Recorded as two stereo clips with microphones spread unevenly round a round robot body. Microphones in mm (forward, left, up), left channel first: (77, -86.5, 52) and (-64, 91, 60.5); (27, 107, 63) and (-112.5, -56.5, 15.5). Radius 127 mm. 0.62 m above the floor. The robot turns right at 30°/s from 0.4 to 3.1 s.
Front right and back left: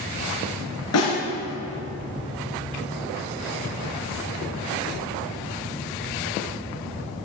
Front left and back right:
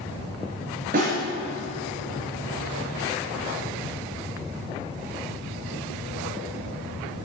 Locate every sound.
0.9 s a snare drum: 70° right, 4.5 m; by 1.2 s 65° right, 4.5 m